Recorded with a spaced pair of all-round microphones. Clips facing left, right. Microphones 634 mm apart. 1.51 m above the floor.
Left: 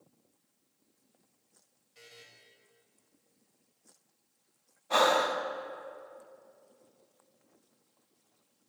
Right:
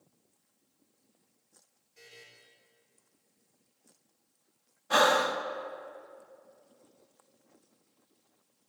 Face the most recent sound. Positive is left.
turn(degrees=-45)  # may be behind; listen again after turning